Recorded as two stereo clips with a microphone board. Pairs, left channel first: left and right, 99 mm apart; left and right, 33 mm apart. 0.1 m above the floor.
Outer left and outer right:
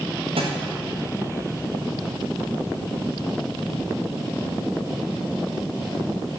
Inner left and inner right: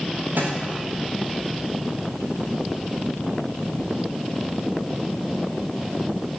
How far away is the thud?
About 7 m.